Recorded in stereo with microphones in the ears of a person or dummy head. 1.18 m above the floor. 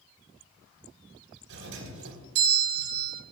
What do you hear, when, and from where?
1.5 s a doorbell: 75° right (ahead or behind), 4 m